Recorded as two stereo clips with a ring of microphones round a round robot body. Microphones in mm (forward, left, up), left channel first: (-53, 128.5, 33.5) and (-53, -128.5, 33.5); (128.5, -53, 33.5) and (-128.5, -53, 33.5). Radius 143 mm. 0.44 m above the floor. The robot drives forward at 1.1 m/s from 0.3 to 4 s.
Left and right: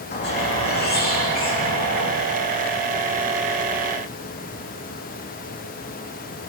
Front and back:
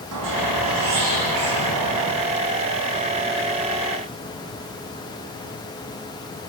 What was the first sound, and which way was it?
A squeak, 140° left.